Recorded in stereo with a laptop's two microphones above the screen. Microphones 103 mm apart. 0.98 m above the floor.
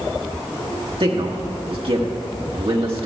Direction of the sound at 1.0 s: 65° right (ahead or behind).